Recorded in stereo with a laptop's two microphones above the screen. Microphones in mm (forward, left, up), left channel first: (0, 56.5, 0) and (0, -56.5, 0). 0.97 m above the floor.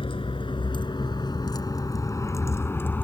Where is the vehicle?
50° left (ahead or behind); by 3.0 s 15° left (ahead or behind).